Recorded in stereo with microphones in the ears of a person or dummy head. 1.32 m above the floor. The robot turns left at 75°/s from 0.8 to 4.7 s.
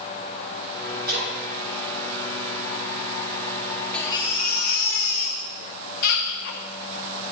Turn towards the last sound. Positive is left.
turn(degrees=120)